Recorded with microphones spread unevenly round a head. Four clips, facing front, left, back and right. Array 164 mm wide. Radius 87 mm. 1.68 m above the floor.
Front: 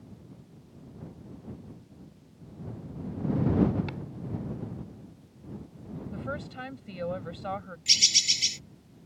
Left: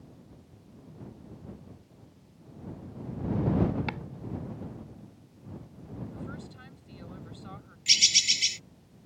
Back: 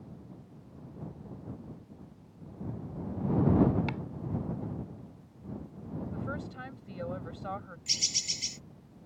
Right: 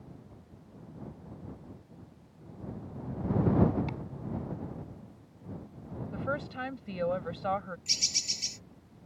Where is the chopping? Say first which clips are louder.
Left 3 dB, back 2 dB; 95° left.